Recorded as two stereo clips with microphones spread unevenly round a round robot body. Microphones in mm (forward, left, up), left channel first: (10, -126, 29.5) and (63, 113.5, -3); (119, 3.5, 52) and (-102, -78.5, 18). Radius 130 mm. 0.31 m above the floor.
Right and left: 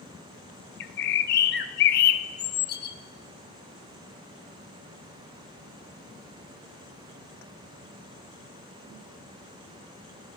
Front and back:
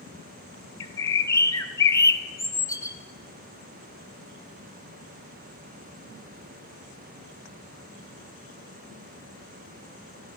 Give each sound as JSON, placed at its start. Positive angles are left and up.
{"t": 0.8, "sound": "a bird", "azimuth_deg": -55, "distance_m": 0.7}